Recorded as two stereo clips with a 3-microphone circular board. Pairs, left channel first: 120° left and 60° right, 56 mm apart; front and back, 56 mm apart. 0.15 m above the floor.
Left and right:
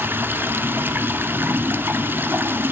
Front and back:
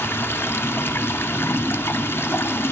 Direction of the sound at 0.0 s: 25° right.